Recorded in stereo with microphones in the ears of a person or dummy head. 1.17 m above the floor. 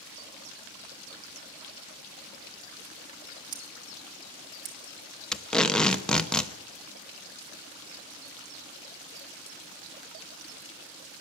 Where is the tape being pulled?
5° left (ahead or behind), 0.8 m.